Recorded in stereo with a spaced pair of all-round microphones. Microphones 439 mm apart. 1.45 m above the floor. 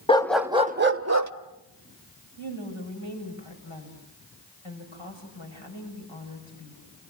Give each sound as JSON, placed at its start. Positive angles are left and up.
{"t": 0.1, "sound": "a dog barking", "side_deg": 15, "distance_m": 0.9}
{"t": 2.4, "sound": "a woman speaking", "side_deg": 85, "distance_m": 6.5}